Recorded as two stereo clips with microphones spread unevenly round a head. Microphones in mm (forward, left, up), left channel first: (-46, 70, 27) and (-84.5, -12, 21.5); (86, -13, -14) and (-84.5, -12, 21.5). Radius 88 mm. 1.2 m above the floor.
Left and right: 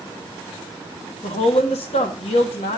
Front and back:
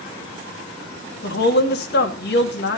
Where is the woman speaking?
30° left, 2 m.